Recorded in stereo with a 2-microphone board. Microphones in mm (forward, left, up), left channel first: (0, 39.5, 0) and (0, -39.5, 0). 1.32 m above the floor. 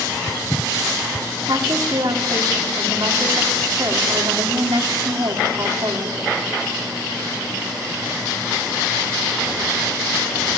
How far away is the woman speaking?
About 4 m.